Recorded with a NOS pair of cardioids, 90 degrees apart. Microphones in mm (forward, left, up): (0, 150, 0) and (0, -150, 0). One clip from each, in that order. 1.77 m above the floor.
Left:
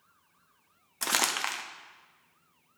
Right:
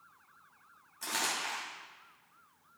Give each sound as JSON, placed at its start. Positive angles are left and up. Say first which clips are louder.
{"t": 1.0, "sound": "crumpling", "louder": "left 6 dB", "azimuth_deg": 65, "distance_m": 0.8}